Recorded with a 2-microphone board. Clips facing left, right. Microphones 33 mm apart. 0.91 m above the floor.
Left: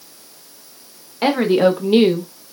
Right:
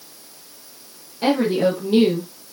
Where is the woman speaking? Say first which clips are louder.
Left 4 dB; 55° left (ahead or behind), 1.0 m; by 2.3 s 20° left (ahead or behind), 0.7 m.